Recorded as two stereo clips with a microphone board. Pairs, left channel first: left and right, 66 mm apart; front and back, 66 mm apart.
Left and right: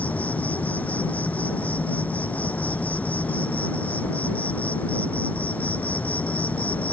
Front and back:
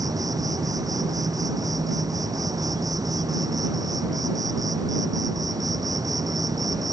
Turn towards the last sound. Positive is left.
turn(degrees=155)